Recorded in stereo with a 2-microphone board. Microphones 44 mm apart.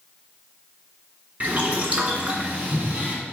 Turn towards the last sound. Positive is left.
turn(degrees=-35)  # may be behind; listen again after turning